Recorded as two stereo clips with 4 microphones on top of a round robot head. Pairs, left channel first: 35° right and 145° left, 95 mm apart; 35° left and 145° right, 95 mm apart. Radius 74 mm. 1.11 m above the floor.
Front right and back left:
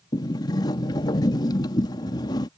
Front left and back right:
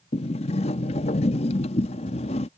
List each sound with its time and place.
0.1 s a sliding door: 20° left